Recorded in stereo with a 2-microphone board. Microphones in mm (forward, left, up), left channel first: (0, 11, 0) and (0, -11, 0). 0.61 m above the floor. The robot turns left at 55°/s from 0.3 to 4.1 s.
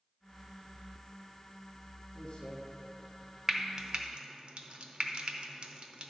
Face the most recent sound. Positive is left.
turn(degrees=-50)  # may be behind; listen again after turning